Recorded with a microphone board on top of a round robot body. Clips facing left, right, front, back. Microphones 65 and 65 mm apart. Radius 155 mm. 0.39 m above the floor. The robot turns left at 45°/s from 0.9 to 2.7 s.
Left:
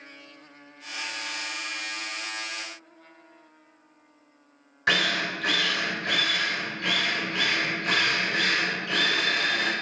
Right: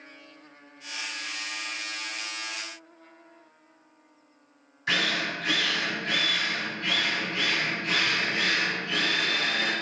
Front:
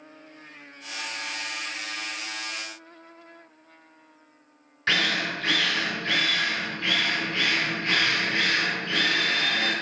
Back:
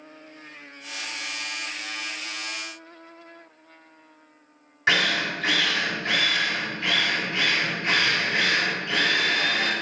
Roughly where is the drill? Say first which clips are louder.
Left 3 dB, back 3 dB; left.